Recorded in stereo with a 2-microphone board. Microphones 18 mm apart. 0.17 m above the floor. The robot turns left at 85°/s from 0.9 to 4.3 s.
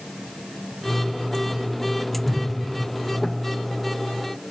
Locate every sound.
2.2 s a whoosh: 5° left (ahead or behind), 0.8 m; by 2.4 s 15° right (ahead or behind), 0.8 m